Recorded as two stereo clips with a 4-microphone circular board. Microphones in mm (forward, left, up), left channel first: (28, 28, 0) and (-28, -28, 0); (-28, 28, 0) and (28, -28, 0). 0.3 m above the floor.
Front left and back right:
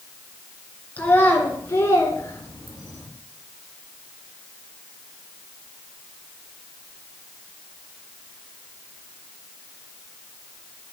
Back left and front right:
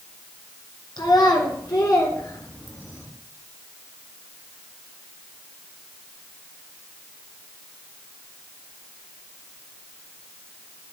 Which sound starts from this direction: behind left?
A child speaking, at 1.0 s.